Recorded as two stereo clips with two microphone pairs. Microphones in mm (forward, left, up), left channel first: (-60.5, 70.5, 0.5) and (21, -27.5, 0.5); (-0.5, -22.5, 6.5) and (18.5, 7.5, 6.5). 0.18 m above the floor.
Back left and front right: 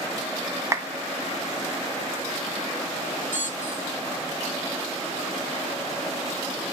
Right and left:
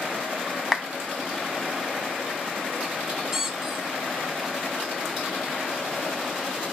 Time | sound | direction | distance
0.7 | a clap | 20° right | 0.9 m
3.3 | a squeak | 135° left | 0.9 m